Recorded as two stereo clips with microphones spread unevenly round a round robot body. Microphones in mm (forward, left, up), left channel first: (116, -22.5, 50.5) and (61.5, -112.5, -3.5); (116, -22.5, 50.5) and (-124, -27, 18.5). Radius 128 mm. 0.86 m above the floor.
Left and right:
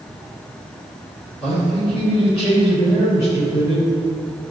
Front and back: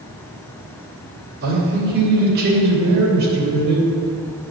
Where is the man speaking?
130° left, 2.5 m.